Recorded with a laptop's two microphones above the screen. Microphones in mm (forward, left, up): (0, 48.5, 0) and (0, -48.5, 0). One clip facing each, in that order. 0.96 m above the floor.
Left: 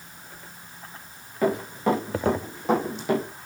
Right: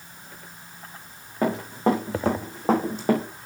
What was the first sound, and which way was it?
Running footsteps, 30° right (ahead or behind).